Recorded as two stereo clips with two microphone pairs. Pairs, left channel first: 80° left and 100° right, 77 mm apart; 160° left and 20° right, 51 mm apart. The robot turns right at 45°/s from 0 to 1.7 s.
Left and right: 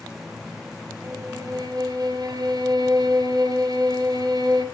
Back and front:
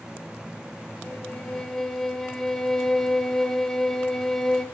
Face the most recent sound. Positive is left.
turn(degrees=-115)